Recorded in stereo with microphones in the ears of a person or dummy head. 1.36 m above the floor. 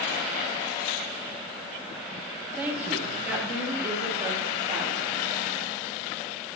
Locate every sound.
2.6 s a woman speaking: 10° right (ahead or behind), 1.7 m; by 5.1 s 15° right (ahead or behind), 4 m